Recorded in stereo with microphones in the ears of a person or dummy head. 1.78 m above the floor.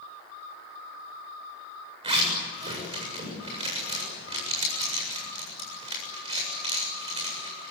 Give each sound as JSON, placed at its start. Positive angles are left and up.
{"t": 2.0, "sound": "a zipper", "side_deg": -30, "distance_m": 7.5}